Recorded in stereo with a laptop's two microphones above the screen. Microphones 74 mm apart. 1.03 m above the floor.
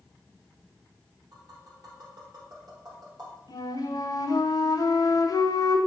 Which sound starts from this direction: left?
A flute, at 3.5 s.